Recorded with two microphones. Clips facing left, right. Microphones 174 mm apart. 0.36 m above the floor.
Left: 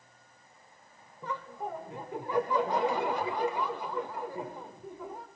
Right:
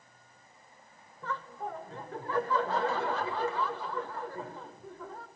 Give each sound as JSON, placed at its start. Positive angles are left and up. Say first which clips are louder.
{"t": 1.2, "sound": "laughter", "louder": "left 1 dB", "side_deg": 15, "distance_m": 1.2}